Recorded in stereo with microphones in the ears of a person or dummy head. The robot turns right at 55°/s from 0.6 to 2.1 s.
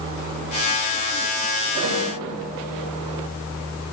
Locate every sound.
1.8 s a snare drum: 60° right (ahead or behind), 9.5 m; by 2.2 s 45° right (ahead or behind), 9.5 m